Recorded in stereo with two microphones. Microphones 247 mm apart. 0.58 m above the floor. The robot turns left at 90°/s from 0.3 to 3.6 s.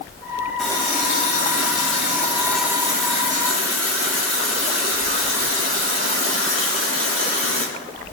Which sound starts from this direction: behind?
A running tap, at 0.6 s.